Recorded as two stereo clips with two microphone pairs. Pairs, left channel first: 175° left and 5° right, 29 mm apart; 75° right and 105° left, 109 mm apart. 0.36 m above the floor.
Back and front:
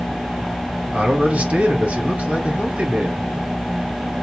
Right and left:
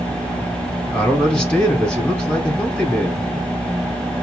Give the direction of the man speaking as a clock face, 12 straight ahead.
12 o'clock.